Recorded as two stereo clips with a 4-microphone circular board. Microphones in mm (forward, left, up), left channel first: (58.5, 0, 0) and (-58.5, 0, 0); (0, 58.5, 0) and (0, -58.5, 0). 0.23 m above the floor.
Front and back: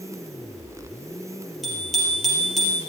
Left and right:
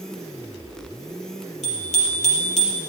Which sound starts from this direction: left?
A bicycle bell, at 1.6 s.